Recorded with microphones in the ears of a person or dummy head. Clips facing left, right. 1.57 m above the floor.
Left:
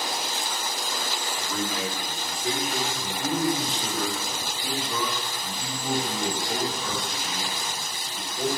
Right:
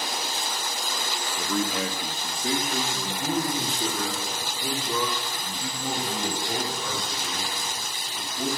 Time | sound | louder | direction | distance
1.4 | a man speaking | right 4 dB | 80° right | 2.5 m